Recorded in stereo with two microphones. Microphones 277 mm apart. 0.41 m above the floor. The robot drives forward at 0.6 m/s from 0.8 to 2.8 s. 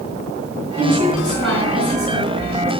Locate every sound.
0.8 s a woman speaking: 60° right (ahead or behind), 4.5 m; by 2.7 s 50° right (ahead or behind), 5 m